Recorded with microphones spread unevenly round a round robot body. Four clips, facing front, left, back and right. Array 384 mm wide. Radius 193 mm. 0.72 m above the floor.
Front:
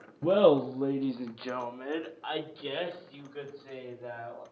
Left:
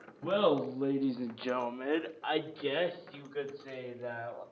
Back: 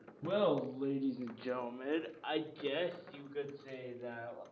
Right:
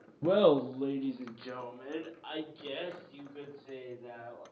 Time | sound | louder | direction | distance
0.2 | laughter | right 3 dB, front 10 dB | 40° right | 1.3 m